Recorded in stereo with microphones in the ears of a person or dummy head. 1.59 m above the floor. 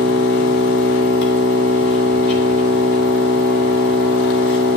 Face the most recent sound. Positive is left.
turn(degrees=75)  # may be behind; listen again after turning